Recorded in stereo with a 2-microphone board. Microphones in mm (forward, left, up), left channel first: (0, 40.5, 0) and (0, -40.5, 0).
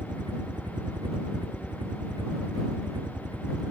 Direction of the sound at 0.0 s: 70° right (ahead or behind).